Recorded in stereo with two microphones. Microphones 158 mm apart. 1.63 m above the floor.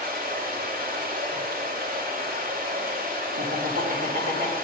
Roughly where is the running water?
Right.